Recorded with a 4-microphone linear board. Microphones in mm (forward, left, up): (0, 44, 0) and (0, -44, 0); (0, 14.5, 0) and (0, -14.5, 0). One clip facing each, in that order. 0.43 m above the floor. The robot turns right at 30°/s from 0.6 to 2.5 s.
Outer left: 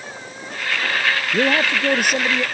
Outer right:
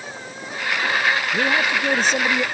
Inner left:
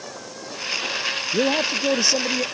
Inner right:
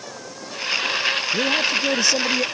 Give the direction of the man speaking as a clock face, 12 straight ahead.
7 o'clock.